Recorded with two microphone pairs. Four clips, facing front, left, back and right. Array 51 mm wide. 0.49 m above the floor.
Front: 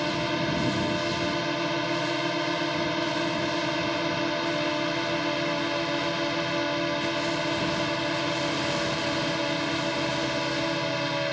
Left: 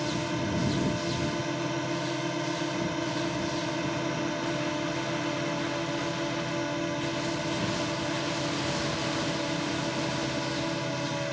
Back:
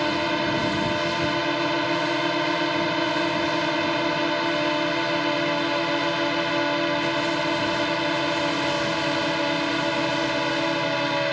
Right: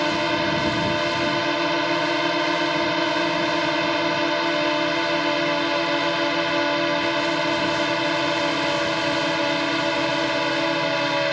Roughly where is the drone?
Behind right.